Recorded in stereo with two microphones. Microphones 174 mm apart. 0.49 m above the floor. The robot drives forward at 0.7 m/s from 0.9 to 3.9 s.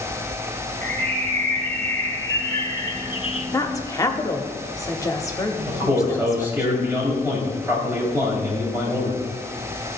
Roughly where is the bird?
Centre.